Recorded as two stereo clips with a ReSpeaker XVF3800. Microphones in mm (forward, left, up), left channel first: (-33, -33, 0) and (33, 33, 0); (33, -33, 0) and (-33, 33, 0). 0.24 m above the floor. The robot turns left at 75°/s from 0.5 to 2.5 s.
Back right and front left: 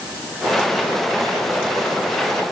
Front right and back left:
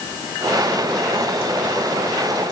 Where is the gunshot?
I don't hear a gunshot.